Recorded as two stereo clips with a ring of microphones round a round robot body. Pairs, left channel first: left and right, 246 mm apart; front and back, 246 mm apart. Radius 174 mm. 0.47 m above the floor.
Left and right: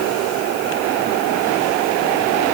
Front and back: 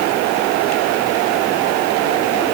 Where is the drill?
No drill in this recording.